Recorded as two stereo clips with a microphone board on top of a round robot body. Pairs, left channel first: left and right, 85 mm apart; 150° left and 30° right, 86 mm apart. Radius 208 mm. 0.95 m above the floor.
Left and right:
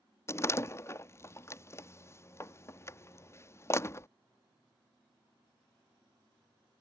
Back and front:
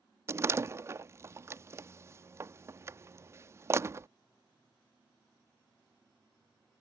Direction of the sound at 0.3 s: 30° left.